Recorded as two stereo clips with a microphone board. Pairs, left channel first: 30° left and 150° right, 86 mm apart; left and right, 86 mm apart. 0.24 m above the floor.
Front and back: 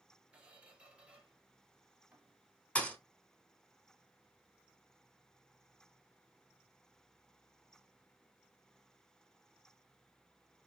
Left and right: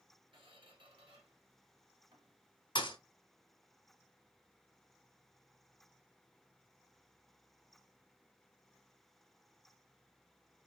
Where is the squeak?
75° right, 1.4 m.